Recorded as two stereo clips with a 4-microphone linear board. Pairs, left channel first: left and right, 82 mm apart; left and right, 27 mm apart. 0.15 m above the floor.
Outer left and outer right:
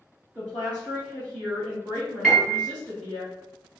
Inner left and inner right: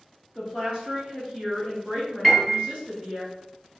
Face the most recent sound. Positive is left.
turn(degrees=-5)  # may be behind; listen again after turning